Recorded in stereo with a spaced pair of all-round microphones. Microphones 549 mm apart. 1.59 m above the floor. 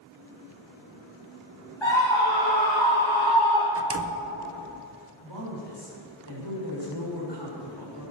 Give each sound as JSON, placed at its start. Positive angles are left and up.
{"t": 1.8, "sound": "a scream", "side_deg": 55, "distance_m": 3.0}
{"t": 3.8, "sound": "a door slam", "side_deg": -30, "distance_m": 0.5}
{"t": 5.2, "sound": "a woman speaking", "side_deg": 50, "distance_m": 6.0}